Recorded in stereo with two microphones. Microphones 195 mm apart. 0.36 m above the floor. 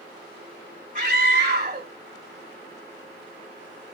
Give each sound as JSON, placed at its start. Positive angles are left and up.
{"t": 0.9, "sound": "a scream", "side_deg": -40, "distance_m": 1.2}